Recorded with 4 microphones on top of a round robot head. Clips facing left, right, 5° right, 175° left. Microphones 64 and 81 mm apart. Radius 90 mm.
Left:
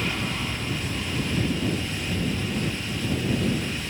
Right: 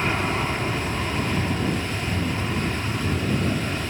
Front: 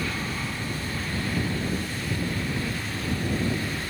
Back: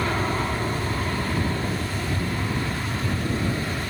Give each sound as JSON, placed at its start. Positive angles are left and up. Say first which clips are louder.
{"t": 0.0, "sound": "an aircraft", "louder": "right 5 dB, back 6 dB", "azimuth_deg": -145}